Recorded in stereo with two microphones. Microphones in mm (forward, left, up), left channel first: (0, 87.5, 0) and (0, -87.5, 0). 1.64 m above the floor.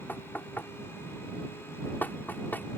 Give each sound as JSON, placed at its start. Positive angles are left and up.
{"t": 0.1, "sound": "knocking", "side_deg": 10}